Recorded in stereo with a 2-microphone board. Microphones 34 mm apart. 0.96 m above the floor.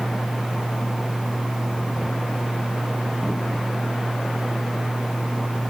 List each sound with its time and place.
Only background noise.